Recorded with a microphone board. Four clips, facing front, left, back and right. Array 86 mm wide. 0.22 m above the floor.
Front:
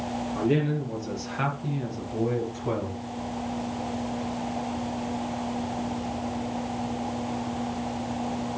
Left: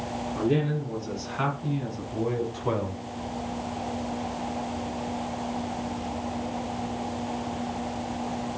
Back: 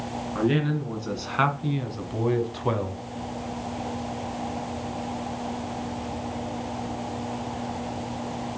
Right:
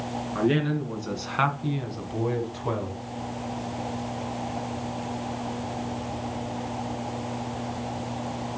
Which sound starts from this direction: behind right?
A man speaking, at 0.3 s.